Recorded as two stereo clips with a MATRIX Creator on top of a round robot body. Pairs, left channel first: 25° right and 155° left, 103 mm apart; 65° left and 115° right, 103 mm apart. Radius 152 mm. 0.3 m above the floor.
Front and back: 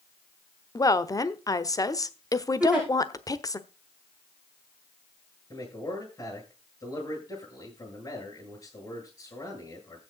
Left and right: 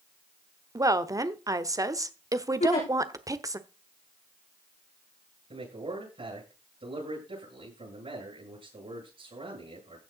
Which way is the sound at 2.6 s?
75° left.